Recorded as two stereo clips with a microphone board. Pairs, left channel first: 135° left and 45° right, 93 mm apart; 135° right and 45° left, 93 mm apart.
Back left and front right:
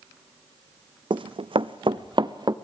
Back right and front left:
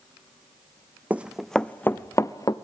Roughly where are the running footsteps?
Ahead right.